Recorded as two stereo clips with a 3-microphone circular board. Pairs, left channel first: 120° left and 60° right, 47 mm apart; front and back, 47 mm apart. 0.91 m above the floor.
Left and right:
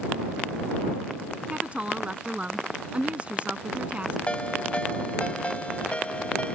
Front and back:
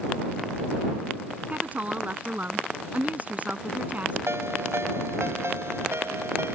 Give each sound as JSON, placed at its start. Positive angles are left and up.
{"t": 1.5, "sound": "a woman speaking", "azimuth_deg": -125}
{"t": 4.3, "sound": "a ringtone", "azimuth_deg": 180}